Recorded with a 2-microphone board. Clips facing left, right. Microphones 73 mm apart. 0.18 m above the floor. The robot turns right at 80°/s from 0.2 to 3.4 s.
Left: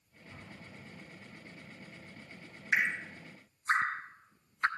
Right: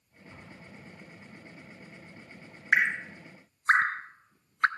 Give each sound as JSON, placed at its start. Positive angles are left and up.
{"t": 0.3, "sound": "an explosion", "side_deg": -5, "distance_m": 5.5}
{"t": 2.7, "sound": "dripping", "side_deg": -55, "distance_m": 0.6}